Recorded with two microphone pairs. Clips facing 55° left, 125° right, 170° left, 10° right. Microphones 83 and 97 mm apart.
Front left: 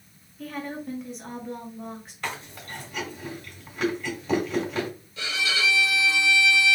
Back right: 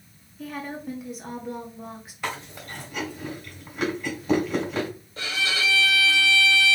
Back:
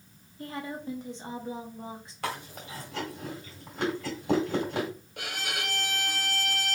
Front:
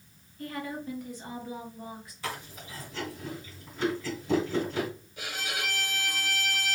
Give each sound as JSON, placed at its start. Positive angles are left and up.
{"t": 0.4, "sound": "a woman speaking", "azimuth_deg": 150, "distance_m": 1.2}
{"t": 2.2, "sound": "chewing", "azimuth_deg": 150, "distance_m": 2.5}
{"t": 5.2, "sound": "a violin", "azimuth_deg": -175, "distance_m": 1.2}